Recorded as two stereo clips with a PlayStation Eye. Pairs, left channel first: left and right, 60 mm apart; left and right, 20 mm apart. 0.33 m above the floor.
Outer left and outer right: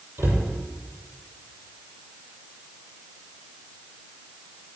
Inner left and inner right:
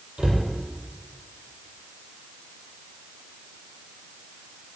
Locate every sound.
0.2 s a cupboard door: 40° right (ahead or behind), 7 m